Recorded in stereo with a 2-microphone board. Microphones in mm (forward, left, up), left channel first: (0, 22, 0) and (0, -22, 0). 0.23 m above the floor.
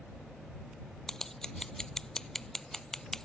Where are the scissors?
10° left (ahead or behind).